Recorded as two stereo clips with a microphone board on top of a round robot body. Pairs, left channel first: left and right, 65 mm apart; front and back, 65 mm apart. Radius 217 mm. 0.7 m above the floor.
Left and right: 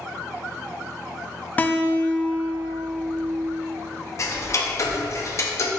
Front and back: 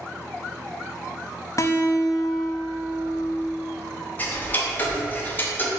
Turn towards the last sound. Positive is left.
turn(degrees=55)